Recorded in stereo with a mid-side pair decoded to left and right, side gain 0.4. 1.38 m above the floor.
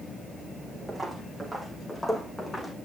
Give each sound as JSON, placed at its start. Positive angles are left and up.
{"t": 0.9, "sound": "footsteps", "azimuth_deg": -10, "distance_m": 4.5}